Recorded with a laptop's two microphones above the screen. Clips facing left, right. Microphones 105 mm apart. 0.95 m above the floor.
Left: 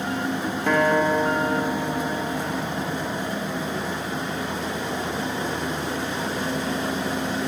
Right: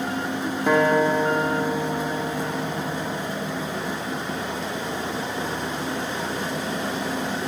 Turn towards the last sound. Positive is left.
turn(degrees=-10)  # may be behind; listen again after turning